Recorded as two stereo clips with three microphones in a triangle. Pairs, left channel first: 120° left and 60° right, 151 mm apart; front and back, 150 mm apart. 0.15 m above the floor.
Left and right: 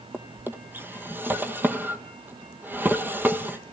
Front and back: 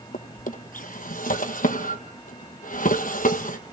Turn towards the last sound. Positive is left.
turn(degrees=20)